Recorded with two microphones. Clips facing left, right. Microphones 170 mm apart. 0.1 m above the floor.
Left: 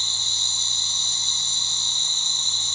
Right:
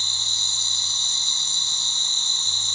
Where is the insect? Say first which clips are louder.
Even; 65° right (ahead or behind), 1.1 m.